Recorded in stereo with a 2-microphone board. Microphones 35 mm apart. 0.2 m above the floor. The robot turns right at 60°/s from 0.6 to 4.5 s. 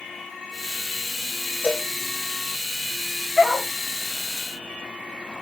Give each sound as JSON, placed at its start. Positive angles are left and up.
{"t": 1.6, "sound": "a cowbell", "side_deg": 35, "distance_m": 4.0}
{"t": 3.4, "sound": "a dog barking", "side_deg": -30, "distance_m": 1.8}